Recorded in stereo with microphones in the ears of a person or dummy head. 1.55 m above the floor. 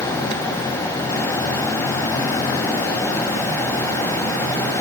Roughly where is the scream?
I don't hear a scream.